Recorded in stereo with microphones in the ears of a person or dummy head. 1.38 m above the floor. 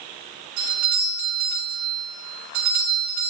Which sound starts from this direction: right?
A doorbell, at 0.6 s.